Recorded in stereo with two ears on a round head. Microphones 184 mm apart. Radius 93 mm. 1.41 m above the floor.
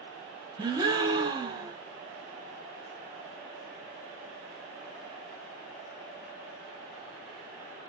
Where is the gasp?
20° right (ahead or behind), 1.0 m.